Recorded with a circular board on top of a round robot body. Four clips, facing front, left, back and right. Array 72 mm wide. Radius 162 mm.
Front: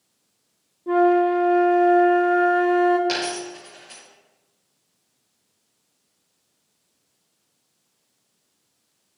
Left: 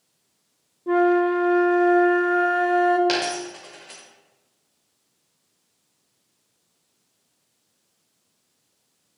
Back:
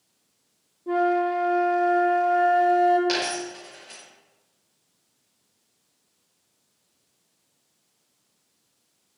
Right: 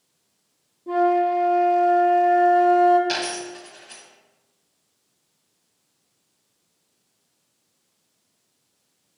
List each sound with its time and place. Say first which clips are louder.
0.9 s a flute: left 1 dB, front 5 dB; 60° left, 1.1 m
3.1 s a dropped coin: left 3 dB, front 1 dB; 85° left, 1.6 m